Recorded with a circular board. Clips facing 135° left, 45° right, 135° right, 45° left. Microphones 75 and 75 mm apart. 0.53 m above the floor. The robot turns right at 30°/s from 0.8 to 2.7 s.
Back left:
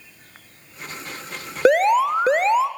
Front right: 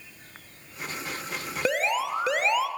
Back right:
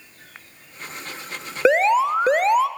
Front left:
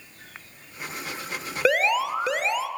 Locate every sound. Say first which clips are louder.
1.6 s an alarm: back left 11 dB, back right 6 dB; 160° left, 0.9 m; by 2.7 s 165° right, 0.9 m